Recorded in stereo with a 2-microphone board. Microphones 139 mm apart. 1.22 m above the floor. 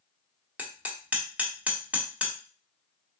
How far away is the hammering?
About 1.2 m.